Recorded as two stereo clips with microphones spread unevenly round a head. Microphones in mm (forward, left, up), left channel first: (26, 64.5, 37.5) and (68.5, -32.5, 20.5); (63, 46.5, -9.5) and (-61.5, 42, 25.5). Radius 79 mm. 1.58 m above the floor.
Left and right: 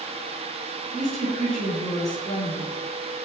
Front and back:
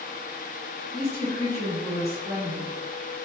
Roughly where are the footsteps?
I don't hear footsteps.